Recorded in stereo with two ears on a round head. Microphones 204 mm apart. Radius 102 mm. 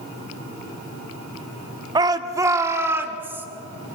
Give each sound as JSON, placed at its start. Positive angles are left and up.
{"t": 1.9, "sound": "a shout", "side_deg": -20, "distance_m": 1.0}